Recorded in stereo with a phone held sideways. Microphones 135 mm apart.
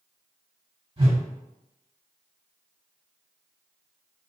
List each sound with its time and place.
1.0 s a whoosh: 40° right (ahead or behind), 1.9 m